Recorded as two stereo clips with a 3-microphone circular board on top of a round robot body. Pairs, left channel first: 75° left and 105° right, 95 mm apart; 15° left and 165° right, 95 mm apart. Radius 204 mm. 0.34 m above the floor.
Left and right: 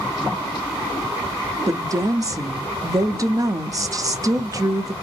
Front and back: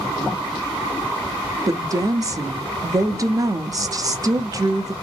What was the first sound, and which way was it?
A woman speaking, 135° right.